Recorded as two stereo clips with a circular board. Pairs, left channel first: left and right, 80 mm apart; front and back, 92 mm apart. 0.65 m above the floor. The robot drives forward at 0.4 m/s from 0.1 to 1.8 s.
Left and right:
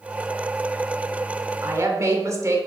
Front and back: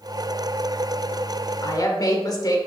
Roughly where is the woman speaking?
Ahead right.